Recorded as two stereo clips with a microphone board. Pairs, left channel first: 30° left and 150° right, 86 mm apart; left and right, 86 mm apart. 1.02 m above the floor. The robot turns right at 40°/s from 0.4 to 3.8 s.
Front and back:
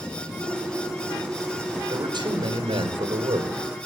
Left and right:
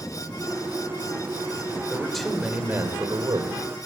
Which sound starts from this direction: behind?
A man speaking, at 1.9 s.